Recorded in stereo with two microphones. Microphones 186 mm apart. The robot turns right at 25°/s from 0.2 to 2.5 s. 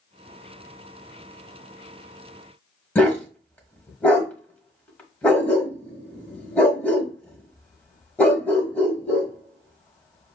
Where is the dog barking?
10° left (ahead or behind), 1.4 m.